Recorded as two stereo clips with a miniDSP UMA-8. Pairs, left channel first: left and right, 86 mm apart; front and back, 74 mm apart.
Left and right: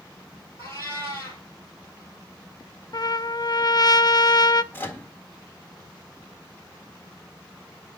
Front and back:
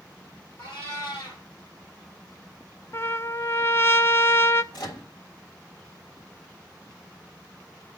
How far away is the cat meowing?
About 5.5 m.